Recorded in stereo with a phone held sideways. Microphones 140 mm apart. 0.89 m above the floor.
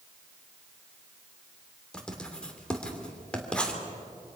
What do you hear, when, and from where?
1.9 s writing: 5° left (ahead or behind), 2.5 m